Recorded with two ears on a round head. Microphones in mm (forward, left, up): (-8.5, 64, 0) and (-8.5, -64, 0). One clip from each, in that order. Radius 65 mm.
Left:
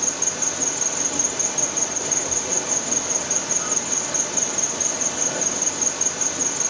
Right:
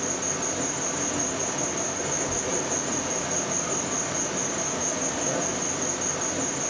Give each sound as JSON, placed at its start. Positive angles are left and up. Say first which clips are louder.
{"t": 0.0, "sound": "an insect", "louder": "left 3 dB", "side_deg": 65, "distance_m": 1.3}